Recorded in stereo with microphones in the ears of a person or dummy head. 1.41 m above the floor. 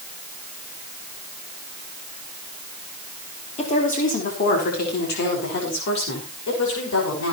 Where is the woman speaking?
30° left (ahead or behind), 4 m; by 7.3 s 70° left (ahead or behind), 6.5 m.